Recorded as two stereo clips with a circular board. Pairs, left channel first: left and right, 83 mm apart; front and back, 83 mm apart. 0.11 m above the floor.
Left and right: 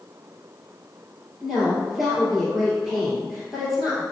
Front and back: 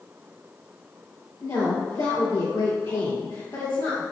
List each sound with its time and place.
1.4 s a woman speaking: straight ahead, 1.8 m